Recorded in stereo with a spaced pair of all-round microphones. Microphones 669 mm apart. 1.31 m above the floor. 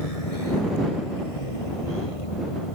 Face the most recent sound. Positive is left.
turn(degrees=45)  # may be behind; listen again after turning